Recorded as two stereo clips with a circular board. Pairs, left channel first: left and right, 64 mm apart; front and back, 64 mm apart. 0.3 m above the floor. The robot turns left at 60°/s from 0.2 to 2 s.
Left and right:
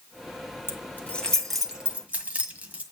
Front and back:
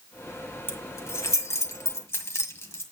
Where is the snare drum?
No snare drum in this recording.